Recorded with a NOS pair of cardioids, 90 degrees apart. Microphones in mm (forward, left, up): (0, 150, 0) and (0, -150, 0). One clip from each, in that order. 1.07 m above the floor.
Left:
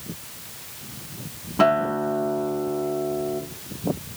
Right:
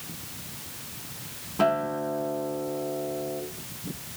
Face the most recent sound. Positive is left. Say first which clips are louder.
# left 5 dB
turn(degrees=35)